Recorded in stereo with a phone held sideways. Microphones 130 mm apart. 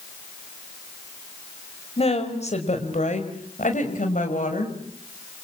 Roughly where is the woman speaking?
Left.